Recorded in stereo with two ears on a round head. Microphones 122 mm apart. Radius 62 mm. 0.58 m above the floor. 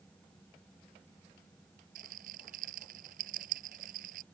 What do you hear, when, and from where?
1.9 s a rattle: 60° right (ahead or behind)